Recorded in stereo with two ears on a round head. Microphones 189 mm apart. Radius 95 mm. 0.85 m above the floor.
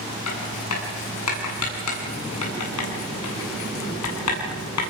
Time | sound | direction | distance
0.3 | writing | 85° left | 9 m